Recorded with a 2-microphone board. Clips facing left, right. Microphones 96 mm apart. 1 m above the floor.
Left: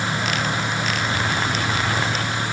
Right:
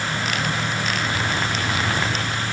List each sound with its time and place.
Only background noise.